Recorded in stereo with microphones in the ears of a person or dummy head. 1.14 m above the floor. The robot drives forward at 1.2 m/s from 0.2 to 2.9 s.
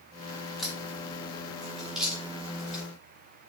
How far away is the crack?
About 3.5 m.